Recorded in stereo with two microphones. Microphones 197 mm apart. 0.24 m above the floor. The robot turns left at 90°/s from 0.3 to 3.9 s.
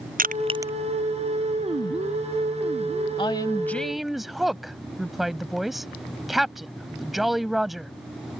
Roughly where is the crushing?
Right.